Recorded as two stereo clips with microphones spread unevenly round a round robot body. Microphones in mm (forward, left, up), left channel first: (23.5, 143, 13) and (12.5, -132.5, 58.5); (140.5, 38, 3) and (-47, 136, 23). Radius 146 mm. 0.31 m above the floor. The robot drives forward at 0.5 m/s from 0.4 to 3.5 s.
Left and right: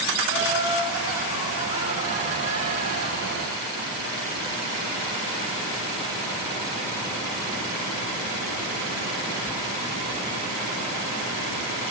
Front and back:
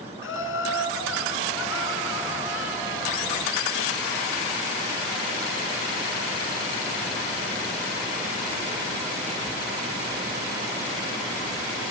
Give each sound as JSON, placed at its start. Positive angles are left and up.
{"t": 0.2, "sound": "laughter", "azimuth_deg": -15, "distance_m": 4.0}